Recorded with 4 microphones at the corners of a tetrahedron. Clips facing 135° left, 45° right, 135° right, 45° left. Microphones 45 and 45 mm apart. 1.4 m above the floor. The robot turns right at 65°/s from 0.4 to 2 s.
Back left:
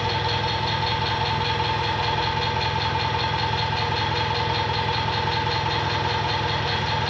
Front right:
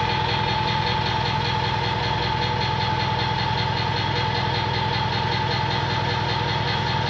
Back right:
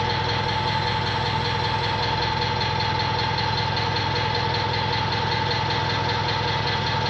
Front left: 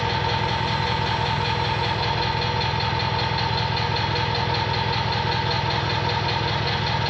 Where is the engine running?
20° left, 1.8 m; by 7.1 s 125° left, 1.8 m.